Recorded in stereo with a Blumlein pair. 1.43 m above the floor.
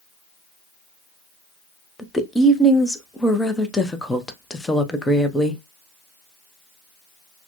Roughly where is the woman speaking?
Ahead.